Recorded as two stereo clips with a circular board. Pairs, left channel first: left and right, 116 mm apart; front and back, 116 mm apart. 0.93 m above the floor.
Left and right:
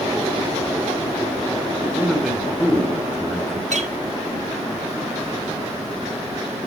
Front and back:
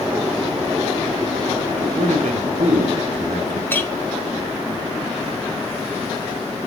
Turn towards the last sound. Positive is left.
turn(degrees=-75)